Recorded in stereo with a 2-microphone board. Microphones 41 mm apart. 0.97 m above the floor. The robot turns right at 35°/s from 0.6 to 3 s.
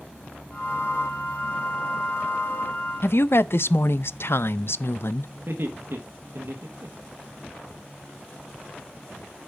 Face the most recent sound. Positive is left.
turn(degrees=-60)  # may be behind; listen again after turning